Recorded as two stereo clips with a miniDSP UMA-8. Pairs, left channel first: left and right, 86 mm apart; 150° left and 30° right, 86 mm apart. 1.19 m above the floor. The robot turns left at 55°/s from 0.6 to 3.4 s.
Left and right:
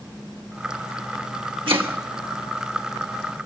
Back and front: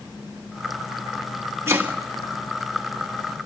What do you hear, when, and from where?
1.7 s chopping: 85° right, 1.4 m; by 2.0 s 100° right, 1.4 m